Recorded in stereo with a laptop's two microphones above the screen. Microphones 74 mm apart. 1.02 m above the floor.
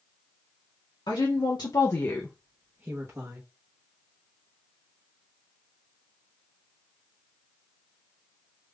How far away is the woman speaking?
About 1.3 m.